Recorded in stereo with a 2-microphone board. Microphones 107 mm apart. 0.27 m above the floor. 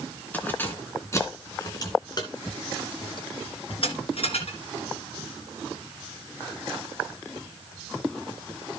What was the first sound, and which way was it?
Keys jangling, 15° left (ahead or behind).